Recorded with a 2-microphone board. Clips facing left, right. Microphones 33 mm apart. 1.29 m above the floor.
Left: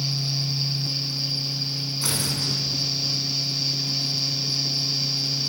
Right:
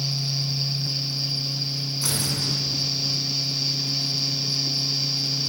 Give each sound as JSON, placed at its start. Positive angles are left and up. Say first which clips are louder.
{"t": 2.0, "sound": "tearing paper", "louder": "even", "side_deg": 15, "distance_m": 8.0}